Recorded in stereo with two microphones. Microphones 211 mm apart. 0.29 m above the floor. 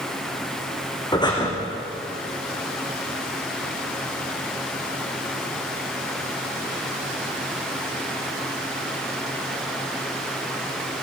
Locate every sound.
1.1 s breathing: 20° left (ahead or behind), 4 m